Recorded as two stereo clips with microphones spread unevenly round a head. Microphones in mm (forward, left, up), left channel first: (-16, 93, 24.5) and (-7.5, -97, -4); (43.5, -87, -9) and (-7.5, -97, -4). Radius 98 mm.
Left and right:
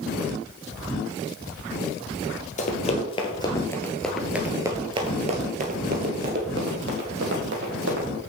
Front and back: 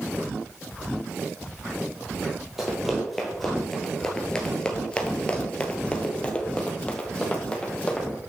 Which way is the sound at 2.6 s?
110° left.